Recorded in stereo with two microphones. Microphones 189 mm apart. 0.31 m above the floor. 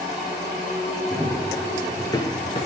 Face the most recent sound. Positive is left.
turn(degrees=40)  # may be behind; listen again after turning